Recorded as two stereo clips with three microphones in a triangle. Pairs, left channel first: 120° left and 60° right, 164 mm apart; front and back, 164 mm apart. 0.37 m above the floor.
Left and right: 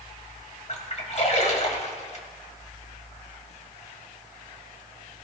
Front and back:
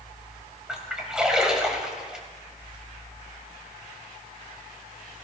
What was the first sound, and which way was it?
A splash, 95° left.